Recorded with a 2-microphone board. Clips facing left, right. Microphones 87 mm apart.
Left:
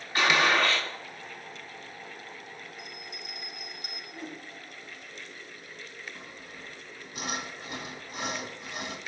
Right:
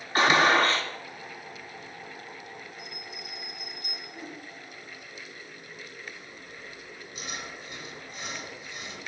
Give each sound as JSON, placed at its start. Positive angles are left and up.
{"t": 0.1, "sound": "a gunshot", "side_deg": -40, "distance_m": 1.9}
{"t": 2.8, "sound": "a bell", "side_deg": 65, "distance_m": 3.5}
{"t": 4.1, "sound": "a whoosh", "side_deg": 5, "distance_m": 3.0}
{"t": 6.2, "sound": "sawing", "side_deg": 60, "distance_m": 1.5}